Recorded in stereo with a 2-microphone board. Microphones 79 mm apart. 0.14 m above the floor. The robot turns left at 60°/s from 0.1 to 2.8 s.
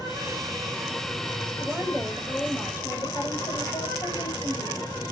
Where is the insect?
120° right, 6 m; by 5.1 s 80° left, 6 m.